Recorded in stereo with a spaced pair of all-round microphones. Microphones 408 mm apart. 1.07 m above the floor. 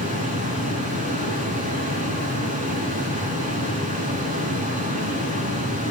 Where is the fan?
20° right (ahead or behind), 6 m.